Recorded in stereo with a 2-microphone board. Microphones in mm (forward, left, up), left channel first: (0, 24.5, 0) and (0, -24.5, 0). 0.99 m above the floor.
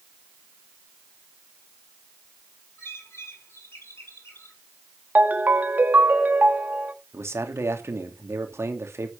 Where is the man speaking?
70° right (ahead or behind), 2 m.